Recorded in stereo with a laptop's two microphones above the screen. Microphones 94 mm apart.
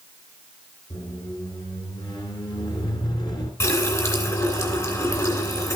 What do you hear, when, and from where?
0.9 s a squeak: 50° left (ahead or behind), 2 m
3.6 s a running tap: 35° left (ahead or behind), 2.5 m